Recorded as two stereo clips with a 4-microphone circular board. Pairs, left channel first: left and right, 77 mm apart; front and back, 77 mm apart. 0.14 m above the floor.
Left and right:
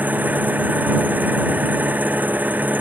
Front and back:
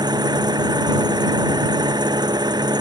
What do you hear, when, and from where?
0.0 s an engine running: 155° right